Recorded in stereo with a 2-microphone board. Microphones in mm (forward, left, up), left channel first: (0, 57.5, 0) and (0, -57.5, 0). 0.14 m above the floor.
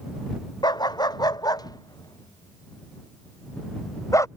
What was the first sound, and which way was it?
A dog barking, 35° left (ahead or behind).